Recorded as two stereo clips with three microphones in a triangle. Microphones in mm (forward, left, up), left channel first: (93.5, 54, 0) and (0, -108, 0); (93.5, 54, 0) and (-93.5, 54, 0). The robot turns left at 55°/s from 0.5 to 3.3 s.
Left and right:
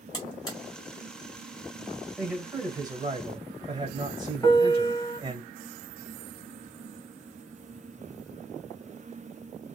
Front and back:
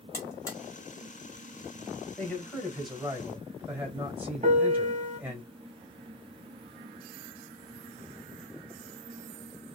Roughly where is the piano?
Behind left.